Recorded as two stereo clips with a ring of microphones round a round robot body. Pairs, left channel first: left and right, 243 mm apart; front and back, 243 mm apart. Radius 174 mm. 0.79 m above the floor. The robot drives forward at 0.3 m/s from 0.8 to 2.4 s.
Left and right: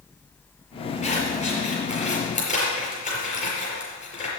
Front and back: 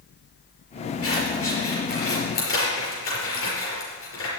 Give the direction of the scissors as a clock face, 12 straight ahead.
11 o'clock.